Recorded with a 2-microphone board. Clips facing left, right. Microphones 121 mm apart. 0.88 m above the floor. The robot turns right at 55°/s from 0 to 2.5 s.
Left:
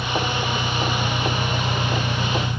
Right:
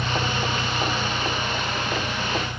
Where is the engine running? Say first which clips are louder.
Left 1 dB; 15° right; by 2.6 s 120° left.